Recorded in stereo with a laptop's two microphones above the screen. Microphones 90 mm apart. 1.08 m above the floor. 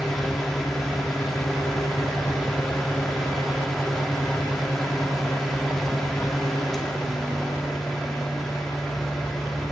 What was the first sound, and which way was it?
A fan, 5° left (ahead or behind).